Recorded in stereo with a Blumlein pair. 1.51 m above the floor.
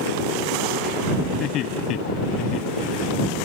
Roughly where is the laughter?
Ahead left.